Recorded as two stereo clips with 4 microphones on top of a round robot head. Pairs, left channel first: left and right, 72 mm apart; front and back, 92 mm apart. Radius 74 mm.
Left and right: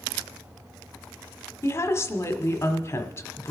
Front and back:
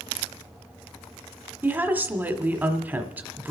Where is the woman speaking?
115° left, 1.3 m.